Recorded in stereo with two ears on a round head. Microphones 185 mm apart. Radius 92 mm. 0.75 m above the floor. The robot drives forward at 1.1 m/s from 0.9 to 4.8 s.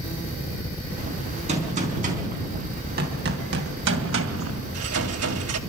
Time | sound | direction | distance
1.5 | a gunshot | 35° right (ahead or behind) | 4.5 m